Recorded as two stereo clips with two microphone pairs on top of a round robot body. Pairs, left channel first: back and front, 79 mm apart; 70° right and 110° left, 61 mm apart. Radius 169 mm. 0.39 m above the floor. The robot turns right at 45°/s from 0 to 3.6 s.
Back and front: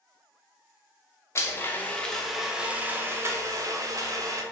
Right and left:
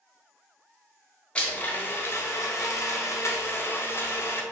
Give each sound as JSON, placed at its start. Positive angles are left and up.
{"t": 1.4, "sound": "a blender", "azimuth_deg": -135, "distance_m": 0.8}